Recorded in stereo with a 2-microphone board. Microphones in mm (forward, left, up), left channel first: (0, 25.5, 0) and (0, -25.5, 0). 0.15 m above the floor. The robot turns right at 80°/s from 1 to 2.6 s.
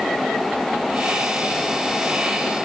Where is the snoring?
No snoring in this recording.